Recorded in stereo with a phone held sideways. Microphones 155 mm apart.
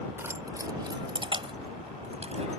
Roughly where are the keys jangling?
Centre.